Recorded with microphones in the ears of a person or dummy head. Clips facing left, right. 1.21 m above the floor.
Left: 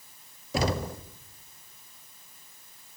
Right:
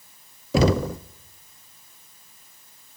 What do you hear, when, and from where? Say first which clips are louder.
0.5 s knocking: right 9 dB; 60° right (ahead or behind), 0.7 m